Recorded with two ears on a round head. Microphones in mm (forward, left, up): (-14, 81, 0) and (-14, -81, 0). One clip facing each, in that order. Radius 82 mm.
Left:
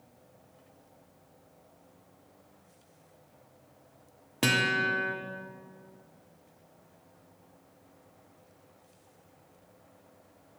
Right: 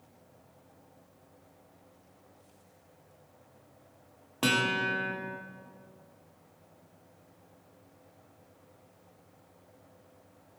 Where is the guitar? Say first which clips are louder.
Even; 20° left (ahead or behind), 1.2 m.